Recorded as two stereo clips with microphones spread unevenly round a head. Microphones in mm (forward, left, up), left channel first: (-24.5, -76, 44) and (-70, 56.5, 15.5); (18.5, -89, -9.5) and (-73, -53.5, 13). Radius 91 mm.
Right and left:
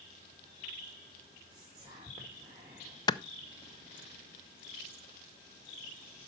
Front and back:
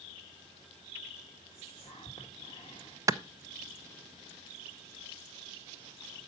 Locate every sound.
1.5 s whispering: 45° left, 1.7 m
3.1 s a clap: 135° right, 0.6 m